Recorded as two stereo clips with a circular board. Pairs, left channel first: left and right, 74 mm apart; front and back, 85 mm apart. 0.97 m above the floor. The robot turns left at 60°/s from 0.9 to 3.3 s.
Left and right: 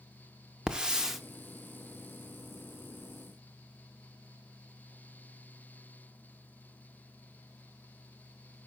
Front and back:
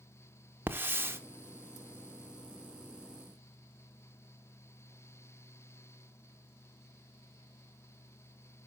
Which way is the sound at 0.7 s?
155° right.